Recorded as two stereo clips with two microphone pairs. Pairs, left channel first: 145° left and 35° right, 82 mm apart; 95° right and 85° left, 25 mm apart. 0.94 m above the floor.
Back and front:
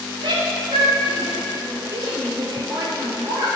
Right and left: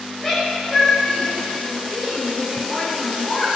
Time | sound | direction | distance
0.2 | a shout | 25° right | 5 m